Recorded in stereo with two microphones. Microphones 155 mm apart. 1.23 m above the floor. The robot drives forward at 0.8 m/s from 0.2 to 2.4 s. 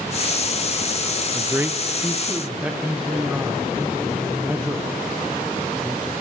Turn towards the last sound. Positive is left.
turn(degrees=-10)  # may be behind; listen again after turning